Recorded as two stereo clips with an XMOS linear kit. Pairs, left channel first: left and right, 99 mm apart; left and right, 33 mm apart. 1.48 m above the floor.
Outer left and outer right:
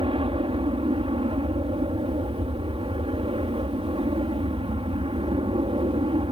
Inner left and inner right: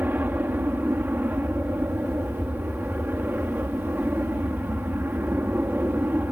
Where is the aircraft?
70° right (ahead or behind).